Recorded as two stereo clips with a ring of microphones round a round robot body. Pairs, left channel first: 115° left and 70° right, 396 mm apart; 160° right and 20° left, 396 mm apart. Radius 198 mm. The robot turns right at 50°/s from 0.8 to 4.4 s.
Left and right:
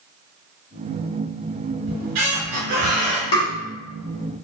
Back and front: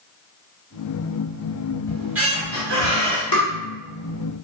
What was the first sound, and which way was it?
A squeak, 75° right.